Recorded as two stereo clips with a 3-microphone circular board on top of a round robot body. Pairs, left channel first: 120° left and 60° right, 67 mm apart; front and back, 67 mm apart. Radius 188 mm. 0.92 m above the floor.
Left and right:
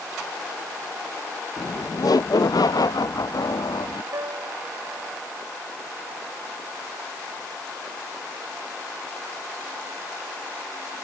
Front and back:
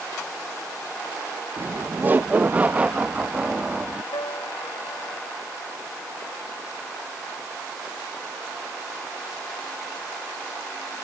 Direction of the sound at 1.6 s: 130° left.